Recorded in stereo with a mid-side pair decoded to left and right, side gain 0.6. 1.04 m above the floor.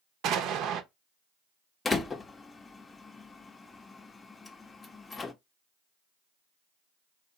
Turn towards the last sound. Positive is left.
turn(degrees=25)